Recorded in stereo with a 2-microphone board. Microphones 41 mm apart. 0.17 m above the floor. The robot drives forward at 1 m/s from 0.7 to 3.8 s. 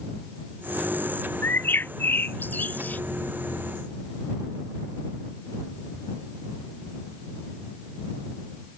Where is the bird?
65° left (ahead or behind); by 3.0 s 45° left (ahead or behind).